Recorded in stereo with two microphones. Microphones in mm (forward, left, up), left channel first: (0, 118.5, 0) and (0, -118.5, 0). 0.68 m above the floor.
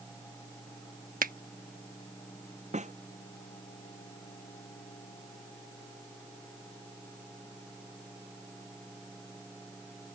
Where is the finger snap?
40° right (ahead or behind).